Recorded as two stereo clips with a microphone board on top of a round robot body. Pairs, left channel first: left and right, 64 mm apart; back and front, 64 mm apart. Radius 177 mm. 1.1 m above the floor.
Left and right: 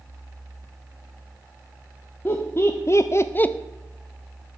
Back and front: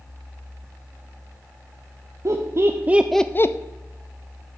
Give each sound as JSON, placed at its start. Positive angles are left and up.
{"t": 2.2, "sound": "laughter", "azimuth_deg": 35, "distance_m": 1.0}